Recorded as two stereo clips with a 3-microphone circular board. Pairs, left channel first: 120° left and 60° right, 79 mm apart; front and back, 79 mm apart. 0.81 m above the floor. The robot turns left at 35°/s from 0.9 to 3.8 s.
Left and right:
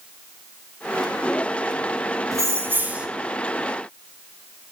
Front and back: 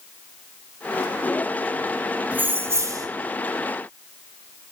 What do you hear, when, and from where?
2.3 s keys jangling: 110° right, 0.9 m; by 3.1 s 135° right, 0.9 m